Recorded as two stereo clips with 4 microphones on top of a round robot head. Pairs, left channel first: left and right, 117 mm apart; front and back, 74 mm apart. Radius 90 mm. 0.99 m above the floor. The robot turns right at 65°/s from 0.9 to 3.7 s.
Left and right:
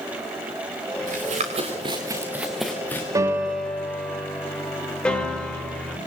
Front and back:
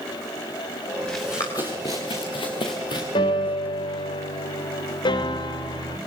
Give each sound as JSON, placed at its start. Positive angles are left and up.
{"t": 1.1, "sound": "running footsteps", "azimuth_deg": -85, "distance_m": 5.0}
{"t": 3.1, "sound": "a piano", "azimuth_deg": -30, "distance_m": 3.5}